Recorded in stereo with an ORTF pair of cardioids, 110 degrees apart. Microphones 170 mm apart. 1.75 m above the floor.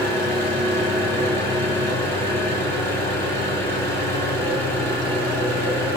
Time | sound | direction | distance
0.0 | an engine running | 15° left | 1.5 m